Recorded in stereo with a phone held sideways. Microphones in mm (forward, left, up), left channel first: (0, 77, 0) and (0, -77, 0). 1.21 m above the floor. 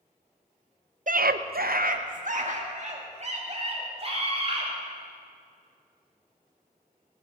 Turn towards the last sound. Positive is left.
turn(degrees=-40)  # may be behind; listen again after turning